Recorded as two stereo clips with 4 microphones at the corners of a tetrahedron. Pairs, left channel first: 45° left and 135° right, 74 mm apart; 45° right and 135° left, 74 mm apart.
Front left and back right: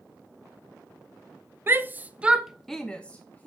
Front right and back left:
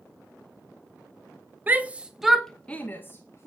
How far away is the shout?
About 0.8 m.